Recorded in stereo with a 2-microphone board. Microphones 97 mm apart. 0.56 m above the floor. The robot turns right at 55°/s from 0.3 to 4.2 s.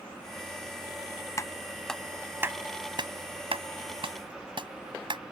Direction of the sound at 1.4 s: 35° left (ahead or behind).